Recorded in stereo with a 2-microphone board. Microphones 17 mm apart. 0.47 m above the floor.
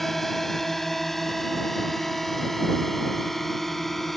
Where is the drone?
15° left (ahead or behind); by 4.2 s 10° left (ahead or behind).